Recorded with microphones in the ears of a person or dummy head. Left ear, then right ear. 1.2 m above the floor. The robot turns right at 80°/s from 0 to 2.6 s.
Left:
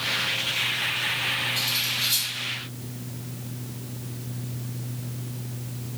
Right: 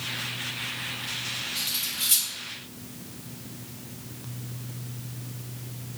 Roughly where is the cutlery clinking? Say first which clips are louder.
Left 5 dB; centre.